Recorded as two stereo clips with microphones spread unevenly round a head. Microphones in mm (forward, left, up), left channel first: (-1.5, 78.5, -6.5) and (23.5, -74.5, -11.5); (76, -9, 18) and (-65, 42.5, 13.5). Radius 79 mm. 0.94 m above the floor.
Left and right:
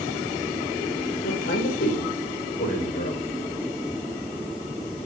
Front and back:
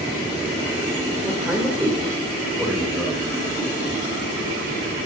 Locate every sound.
1.2 s a man speaking: 80° left, 4.5 m; by 3.2 s 65° left, 6.5 m